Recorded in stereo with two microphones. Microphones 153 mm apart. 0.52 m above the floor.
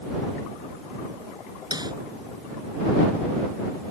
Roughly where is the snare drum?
Right.